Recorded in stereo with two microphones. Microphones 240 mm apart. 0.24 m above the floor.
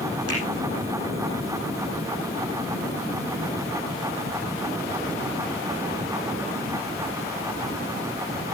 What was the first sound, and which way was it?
A finger snap, 85° left.